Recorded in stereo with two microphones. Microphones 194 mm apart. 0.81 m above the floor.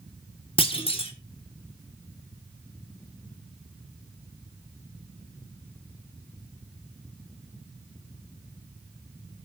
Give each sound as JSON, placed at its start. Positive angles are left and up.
{"t": 0.6, "sound": "a clunk", "side_deg": 30, "distance_m": 1.6}